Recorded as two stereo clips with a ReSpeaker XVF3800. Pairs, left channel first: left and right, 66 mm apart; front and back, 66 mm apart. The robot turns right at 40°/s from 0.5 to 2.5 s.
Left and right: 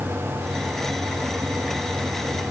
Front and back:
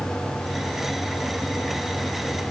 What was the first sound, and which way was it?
Only background noise.